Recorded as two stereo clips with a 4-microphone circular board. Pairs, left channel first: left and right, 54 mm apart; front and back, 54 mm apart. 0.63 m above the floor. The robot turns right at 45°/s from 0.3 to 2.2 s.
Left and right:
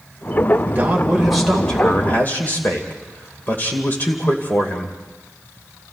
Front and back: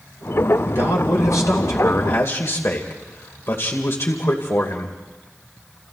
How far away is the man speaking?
About 2.5 m.